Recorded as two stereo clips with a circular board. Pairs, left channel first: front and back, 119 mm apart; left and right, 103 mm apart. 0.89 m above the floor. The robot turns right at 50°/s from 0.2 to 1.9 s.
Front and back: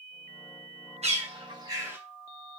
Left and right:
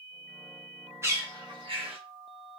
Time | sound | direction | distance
1.0 | a bird | 155° right | 1.1 m